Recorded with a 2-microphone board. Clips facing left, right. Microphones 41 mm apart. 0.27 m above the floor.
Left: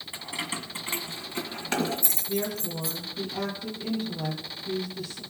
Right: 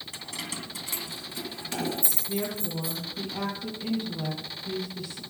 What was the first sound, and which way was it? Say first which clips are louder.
Keys jangling: left 4 dB; 20° left (ahead or behind).